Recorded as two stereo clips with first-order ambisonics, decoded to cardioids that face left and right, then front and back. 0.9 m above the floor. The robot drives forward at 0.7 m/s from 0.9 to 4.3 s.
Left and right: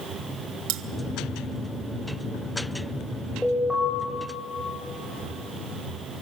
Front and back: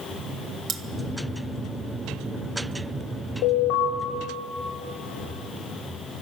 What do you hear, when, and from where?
0.7 s cutlery clinking: 115° right, 0.8 m
3.4 s an alarm: 5° left, 5 m